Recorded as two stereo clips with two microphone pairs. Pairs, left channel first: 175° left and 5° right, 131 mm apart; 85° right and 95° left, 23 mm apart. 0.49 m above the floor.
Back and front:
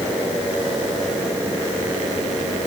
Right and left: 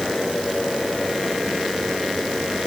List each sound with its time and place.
Only background noise.